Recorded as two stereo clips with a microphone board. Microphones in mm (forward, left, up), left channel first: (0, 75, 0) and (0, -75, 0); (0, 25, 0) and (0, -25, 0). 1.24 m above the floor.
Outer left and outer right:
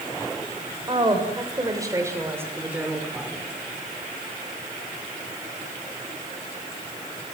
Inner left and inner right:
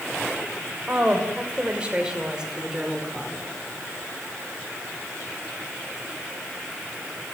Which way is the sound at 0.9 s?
30° right (ahead or behind).